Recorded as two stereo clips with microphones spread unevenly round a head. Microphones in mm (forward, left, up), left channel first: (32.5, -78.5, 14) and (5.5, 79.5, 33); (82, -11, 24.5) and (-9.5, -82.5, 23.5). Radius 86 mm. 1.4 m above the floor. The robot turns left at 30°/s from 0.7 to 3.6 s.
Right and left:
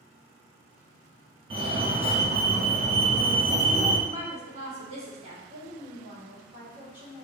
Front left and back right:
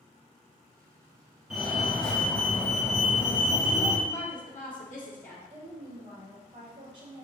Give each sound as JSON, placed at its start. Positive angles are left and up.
{"t": 1.5, "sound": "a fire alarm", "azimuth_deg": 135, "distance_m": 1.1}
{"t": 4.1, "sound": "a woman speaking", "azimuth_deg": 50, "distance_m": 1.7}
{"t": 5.5, "sound": "a woman speaking", "azimuth_deg": 180, "distance_m": 2.0}